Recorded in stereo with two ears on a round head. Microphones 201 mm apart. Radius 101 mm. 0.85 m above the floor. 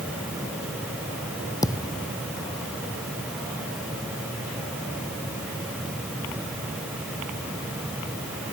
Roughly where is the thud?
Centre.